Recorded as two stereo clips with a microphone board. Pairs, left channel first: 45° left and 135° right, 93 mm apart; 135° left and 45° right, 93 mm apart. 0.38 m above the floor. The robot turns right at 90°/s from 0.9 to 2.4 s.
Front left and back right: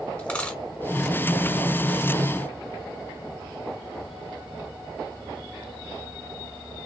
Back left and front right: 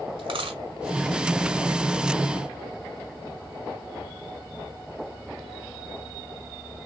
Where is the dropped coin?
30° right, 1.2 m.